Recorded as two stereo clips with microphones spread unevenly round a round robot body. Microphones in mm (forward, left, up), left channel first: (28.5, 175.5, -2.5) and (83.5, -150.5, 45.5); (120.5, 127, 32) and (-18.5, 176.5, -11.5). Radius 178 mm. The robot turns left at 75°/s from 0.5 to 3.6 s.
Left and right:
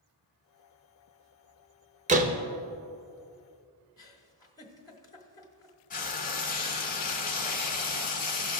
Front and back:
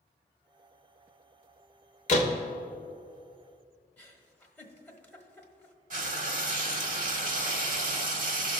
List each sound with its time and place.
2.1 s a door slam: 15° right, 0.8 m; by 2.4 s 40° right, 0.8 m
4.0 s a giggle: 90° left, 1.3 m
5.9 s frying: 160° left, 0.7 m